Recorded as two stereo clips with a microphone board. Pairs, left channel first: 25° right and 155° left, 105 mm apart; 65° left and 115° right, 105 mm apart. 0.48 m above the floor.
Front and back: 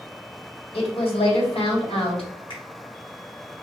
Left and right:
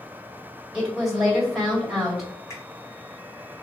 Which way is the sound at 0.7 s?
25° right.